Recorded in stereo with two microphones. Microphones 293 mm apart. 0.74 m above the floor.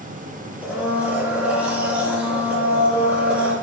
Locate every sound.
0.6 s a blender: 5° right (ahead or behind), 0.7 m